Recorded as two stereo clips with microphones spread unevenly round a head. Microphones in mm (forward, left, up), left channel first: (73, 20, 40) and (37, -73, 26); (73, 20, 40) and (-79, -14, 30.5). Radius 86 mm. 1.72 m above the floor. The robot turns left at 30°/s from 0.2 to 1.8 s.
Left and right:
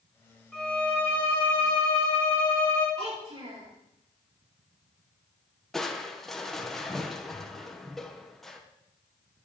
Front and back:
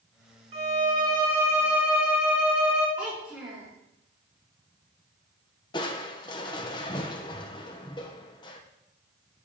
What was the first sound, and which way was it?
A violin, 145° left.